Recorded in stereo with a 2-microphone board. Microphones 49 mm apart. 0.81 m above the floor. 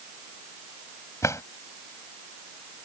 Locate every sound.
1.2 s a drawer: 85° left